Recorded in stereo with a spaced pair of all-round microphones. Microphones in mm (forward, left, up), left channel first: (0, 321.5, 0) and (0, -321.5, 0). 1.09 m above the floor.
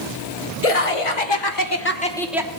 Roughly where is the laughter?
Left.